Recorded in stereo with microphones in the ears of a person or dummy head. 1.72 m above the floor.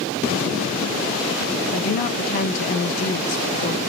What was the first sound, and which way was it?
A woman speaking, 50° left (ahead or behind).